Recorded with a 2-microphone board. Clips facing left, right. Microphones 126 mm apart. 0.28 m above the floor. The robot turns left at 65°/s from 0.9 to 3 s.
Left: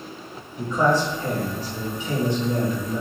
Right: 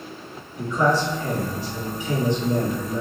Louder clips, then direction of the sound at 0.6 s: Even; 145° left.